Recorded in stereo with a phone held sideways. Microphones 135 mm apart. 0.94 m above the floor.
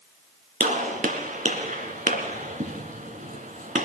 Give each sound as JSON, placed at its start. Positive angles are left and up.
{"t": 0.6, "sound": "a gunshot", "side_deg": -70, "distance_m": 2.0}